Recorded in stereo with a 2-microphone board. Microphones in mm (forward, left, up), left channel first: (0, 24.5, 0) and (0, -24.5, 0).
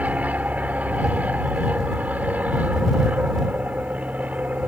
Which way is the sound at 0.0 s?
30° right (ahead or behind).